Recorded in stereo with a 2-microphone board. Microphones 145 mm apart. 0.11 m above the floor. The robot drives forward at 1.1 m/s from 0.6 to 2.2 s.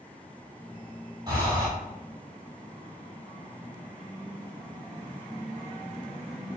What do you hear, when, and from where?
1.3 s breathing: 25° right (ahead or behind), 1.5 m; by 1.7 s 20° right (ahead or behind), 1.9 m